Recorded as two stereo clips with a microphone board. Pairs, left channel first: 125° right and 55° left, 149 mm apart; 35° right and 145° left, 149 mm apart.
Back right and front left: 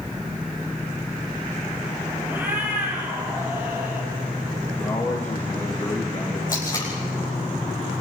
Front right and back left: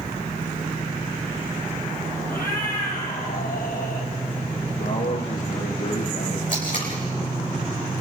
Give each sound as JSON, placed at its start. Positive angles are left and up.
{"t": 2.3, "sound": "a cat meowing", "azimuth_deg": -20, "distance_m": 4.5}
{"t": 4.8, "sound": "a man speaking", "azimuth_deg": -45, "distance_m": 7.5}
{"t": 6.5, "sound": "tape being pulled", "azimuth_deg": -65, "distance_m": 7.0}